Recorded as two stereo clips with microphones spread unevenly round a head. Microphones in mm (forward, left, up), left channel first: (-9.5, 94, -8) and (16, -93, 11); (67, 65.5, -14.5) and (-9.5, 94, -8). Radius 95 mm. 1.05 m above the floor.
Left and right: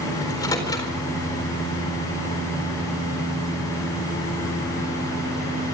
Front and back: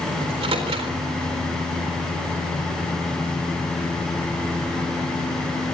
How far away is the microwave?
About 4 m.